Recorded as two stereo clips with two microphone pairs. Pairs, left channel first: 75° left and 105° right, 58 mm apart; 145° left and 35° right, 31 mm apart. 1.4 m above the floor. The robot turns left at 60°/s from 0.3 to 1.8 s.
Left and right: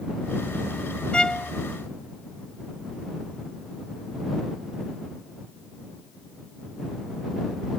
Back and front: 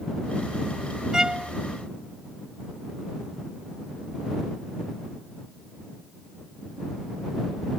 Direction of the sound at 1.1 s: 15° left.